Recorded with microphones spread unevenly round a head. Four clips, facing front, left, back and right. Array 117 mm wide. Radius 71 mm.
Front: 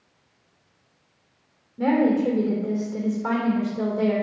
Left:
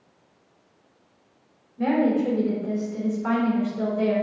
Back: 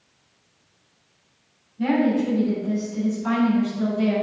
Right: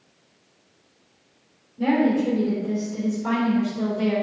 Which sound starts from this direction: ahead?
A woman speaking, at 1.8 s.